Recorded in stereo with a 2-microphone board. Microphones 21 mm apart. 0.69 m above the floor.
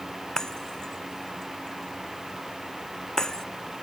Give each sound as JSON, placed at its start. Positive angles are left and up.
{"t": 0.4, "sound": "breaking glass", "side_deg": 30}